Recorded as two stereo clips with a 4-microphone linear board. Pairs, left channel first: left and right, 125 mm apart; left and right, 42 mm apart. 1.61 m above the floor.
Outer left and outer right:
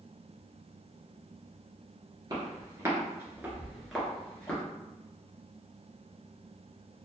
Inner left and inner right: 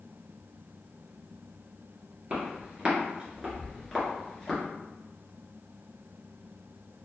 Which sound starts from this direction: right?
Footsteps, at 2.3 s.